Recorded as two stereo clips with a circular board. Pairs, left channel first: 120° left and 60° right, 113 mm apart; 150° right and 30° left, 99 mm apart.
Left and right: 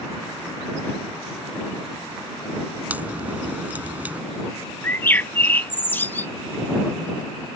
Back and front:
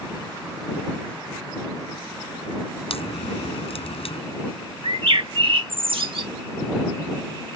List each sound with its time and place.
2.9 s a crack: 135° right
4.8 s a bird: 50° left